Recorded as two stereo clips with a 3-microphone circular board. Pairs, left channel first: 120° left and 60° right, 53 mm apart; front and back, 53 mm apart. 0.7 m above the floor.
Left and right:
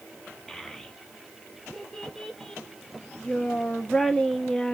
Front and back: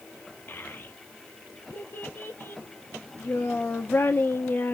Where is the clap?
No clap in this recording.